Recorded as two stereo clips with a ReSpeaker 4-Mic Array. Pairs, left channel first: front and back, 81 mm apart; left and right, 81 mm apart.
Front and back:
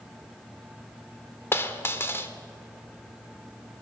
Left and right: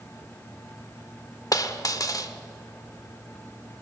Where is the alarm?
I don't hear an alarm.